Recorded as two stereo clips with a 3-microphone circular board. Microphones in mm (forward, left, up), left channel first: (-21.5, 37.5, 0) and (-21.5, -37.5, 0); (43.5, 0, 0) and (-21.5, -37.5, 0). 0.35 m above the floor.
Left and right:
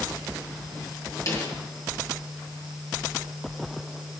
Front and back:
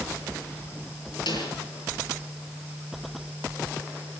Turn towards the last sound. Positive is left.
turn(degrees=45)